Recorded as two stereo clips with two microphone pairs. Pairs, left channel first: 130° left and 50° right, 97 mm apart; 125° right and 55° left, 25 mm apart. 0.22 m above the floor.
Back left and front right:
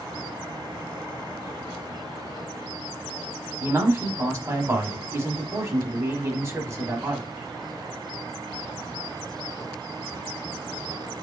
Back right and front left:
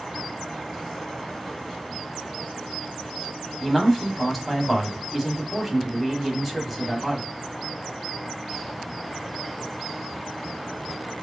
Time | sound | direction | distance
3.6 | a man speaking | 35° right | 1.1 m